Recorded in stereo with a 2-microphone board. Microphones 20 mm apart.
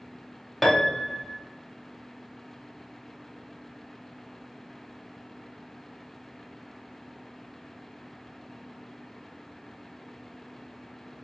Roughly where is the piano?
Centre.